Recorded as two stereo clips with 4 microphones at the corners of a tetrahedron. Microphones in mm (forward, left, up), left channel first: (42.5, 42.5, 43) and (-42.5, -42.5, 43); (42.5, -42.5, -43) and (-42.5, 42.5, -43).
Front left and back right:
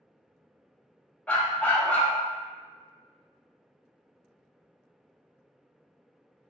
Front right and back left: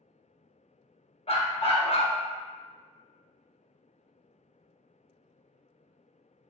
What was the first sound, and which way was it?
A dog barking, 30° right.